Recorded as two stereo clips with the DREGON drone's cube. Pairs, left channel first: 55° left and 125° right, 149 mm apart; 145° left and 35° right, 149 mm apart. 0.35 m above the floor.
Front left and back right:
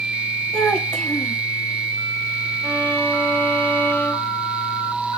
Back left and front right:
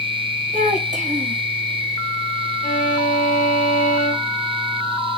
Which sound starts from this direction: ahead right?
A child speaking, at 0.5 s.